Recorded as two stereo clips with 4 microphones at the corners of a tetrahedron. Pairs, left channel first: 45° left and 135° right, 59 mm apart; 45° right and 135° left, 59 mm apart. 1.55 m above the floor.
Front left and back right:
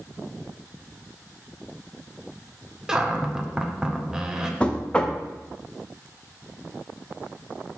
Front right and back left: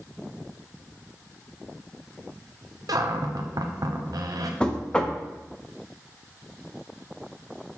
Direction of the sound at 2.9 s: 145° left.